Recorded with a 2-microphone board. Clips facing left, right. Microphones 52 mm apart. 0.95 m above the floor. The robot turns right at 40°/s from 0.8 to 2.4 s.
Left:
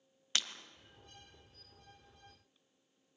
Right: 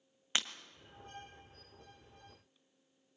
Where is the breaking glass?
20° right (ahead or behind), 1.2 m.